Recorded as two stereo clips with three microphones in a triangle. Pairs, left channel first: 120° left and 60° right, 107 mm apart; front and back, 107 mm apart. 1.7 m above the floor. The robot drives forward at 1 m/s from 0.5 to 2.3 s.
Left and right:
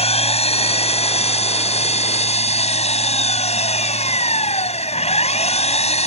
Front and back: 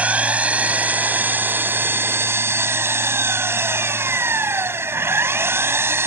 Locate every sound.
0.0 s an engine running: 100° left; by 6.1 s 110° left